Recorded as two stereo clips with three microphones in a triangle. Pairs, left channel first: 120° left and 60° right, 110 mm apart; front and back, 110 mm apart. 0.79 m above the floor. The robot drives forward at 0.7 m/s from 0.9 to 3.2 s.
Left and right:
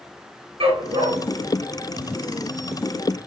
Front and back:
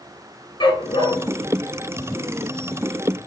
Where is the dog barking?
40° right, 4.5 m; by 3.3 s 55° right, 3.5 m.